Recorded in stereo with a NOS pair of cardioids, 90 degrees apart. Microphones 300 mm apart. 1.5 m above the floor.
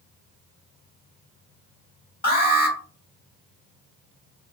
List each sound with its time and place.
2.2 s an alarm: 30° left, 1.2 m